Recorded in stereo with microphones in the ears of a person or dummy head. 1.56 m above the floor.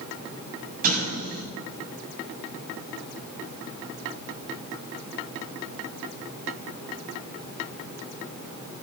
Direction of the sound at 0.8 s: 50° right (ahead or behind).